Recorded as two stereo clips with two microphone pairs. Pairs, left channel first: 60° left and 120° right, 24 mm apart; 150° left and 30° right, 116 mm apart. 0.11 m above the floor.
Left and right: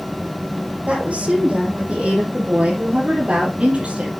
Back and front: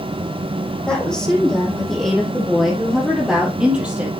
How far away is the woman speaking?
About 4 m.